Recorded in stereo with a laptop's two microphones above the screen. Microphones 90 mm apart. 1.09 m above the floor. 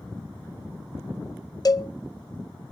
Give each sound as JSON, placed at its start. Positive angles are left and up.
{"t": 1.6, "sound": "a cowbell", "side_deg": 40, "distance_m": 0.8}